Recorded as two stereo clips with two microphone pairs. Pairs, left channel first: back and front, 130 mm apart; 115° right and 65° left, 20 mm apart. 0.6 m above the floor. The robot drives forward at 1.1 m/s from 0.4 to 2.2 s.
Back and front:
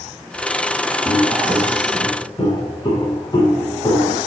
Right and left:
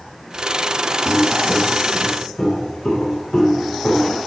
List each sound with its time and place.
1.1 s footsteps: 130° right, 3 m; by 4.2 s 115° right, 3.5 m